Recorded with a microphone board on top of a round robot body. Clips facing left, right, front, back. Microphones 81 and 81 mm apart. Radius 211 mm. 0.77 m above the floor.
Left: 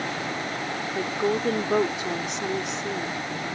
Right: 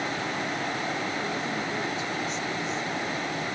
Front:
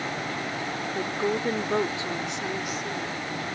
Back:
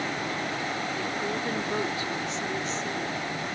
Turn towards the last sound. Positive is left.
turn(degrees=85)